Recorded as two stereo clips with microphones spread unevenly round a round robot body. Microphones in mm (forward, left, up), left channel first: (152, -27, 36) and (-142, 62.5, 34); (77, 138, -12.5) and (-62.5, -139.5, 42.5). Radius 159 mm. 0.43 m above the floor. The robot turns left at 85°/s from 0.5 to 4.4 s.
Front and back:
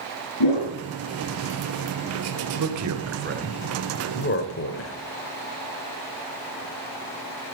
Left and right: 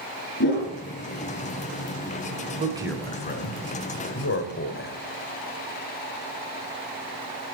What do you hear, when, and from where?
0.4 s a whoosh: 10° left, 8 m; by 0.7 s 10° right, 8 m
2.6 s a man speaking: 175° left, 2.0 m; by 5.0 s 20° left, 2.0 m